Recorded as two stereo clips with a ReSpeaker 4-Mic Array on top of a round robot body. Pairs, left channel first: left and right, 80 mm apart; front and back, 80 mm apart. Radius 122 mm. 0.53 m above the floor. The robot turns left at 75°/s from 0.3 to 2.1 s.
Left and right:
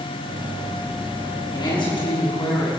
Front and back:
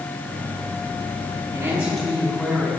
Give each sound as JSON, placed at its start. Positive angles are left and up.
{"t": 1.5, "sound": "a woman speaking", "azimuth_deg": 125, "distance_m": 6.0}